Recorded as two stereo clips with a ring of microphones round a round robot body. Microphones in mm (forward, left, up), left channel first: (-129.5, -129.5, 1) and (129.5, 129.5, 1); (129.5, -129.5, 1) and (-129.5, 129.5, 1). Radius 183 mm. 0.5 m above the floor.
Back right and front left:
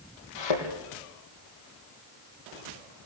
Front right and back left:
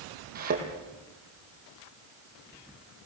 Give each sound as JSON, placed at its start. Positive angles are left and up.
{"t": 0.3, "sound": "a thud", "azimuth_deg": -155, "distance_m": 4.0}